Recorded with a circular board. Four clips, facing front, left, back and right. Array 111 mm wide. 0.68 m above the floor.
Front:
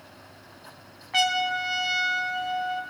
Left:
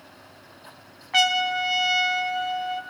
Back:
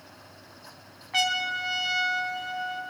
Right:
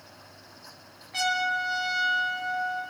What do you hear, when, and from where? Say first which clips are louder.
1.1 s a trumpet: left 4 dB, front 4 dB; 85° left, 1.0 m